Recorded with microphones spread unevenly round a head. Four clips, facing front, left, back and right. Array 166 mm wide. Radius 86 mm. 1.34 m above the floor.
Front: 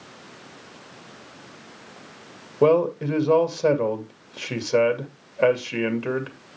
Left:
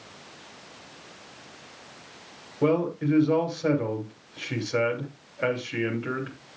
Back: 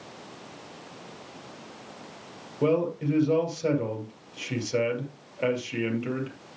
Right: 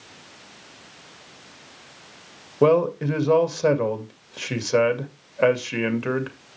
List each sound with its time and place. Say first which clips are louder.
2.6 s a man speaking: right 6 dB, front 6 dB; 50° right, 2.5 m